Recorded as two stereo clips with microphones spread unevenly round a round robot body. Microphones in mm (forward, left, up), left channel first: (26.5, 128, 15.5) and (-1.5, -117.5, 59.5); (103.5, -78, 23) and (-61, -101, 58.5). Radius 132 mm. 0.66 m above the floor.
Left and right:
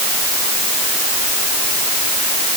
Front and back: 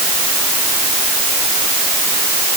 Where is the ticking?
No ticking in this recording.